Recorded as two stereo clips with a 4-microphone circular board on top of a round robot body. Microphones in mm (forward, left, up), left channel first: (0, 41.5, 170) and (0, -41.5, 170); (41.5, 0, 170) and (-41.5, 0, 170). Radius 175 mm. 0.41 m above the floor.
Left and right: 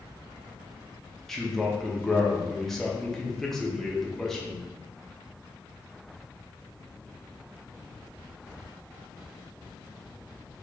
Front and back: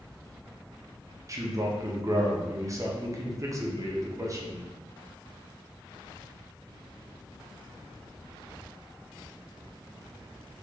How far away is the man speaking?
About 1.0 m.